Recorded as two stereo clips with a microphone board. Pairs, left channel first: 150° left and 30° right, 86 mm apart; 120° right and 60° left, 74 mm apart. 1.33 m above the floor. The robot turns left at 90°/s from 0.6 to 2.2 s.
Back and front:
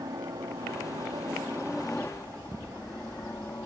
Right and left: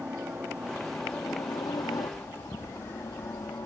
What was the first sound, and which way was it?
A helicopter, 5° right.